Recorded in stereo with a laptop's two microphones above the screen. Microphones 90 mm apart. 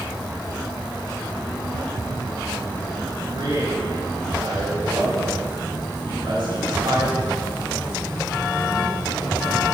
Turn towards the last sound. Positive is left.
turn(degrees=-85)